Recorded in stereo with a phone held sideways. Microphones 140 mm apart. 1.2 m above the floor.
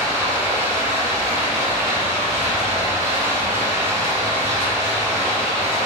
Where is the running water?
20° right (ahead or behind), 0.9 m.